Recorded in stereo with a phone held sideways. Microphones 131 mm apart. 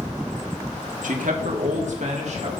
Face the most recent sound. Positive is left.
turn(degrees=-55)  # may be behind; listen again after turning